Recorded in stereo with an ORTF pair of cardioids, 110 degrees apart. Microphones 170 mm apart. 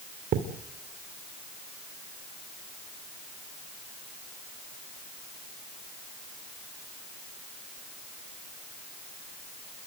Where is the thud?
60° right, 2.5 m.